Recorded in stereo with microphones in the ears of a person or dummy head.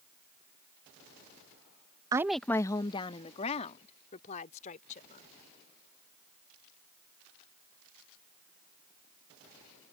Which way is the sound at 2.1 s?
15° right (ahead or behind).